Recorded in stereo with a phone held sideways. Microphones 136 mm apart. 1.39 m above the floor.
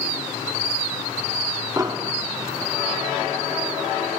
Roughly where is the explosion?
Right.